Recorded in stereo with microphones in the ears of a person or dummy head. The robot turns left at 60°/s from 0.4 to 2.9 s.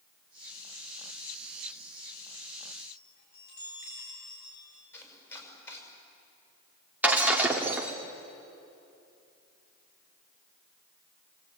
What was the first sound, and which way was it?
A chime, 60° left (ahead or behind).